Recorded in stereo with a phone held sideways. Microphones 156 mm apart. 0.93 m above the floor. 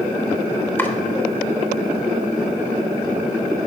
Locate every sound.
0.8 s chopping: 15° left (ahead or behind), 0.9 m